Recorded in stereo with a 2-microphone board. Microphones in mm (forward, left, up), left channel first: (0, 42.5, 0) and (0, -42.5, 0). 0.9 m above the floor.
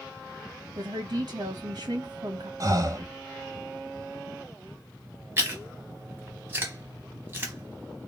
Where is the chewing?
25° right (ahead or behind), 0.9 m.